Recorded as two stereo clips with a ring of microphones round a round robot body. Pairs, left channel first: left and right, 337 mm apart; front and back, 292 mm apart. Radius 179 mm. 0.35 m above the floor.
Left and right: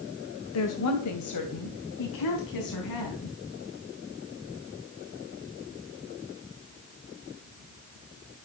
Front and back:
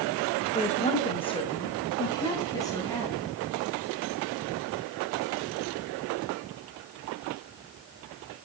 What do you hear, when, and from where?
0.5 s a woman speaking: 60° left, 2.0 m; by 3.3 s 80° left, 4.5 m